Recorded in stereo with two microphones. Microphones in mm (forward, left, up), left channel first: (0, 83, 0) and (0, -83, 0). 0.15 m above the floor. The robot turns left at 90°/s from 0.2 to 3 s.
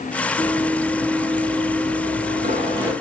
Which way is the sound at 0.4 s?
40° left (ahead or behind).